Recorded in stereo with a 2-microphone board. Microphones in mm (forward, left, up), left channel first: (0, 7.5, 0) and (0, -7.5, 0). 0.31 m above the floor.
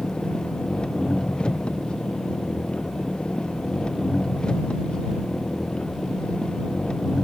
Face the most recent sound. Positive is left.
turn(degrees=75)  # may be behind; listen again after turning